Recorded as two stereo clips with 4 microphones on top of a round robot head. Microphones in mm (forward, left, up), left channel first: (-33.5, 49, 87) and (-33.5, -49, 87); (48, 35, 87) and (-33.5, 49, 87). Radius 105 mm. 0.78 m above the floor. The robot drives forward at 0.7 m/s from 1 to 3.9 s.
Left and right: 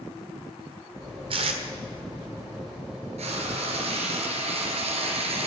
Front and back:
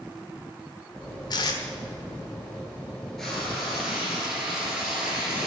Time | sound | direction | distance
1.3 | tape being pulled | 55° right | 1.4 m
3.2 | frying | 95° right | 3 m